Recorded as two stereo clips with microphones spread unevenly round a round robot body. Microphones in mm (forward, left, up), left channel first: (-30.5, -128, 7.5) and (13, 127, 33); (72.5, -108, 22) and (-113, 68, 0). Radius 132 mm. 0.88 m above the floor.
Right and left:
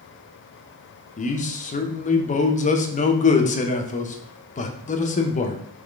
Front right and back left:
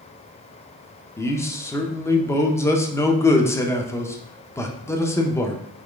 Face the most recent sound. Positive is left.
turn(degrees=-125)